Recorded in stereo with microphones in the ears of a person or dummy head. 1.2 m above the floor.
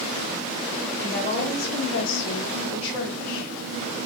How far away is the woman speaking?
About 1.0 m.